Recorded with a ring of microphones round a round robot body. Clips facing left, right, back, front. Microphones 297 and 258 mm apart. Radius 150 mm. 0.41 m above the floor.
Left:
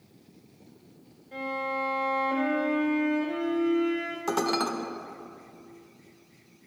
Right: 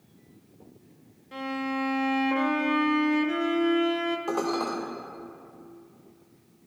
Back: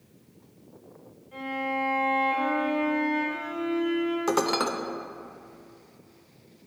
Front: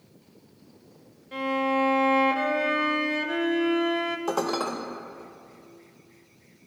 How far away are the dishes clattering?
About 0.7 m.